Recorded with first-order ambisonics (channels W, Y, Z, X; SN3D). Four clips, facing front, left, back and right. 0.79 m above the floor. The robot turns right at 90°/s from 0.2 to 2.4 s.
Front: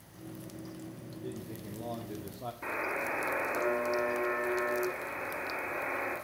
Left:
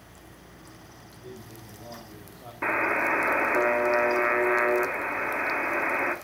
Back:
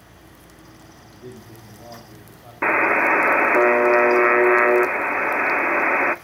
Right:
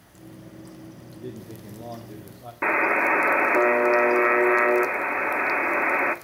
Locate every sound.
1.1 s a man speaking: 120° right, 1.9 m; by 2.5 s 5° right, 1.9 m
2.6 s a buzzer: 165° right, 0.8 m